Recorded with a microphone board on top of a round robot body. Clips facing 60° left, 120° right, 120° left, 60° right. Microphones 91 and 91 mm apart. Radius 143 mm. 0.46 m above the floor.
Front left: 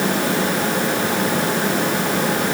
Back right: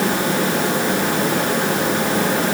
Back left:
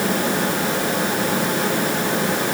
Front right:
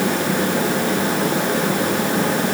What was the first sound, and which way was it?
Only background noise.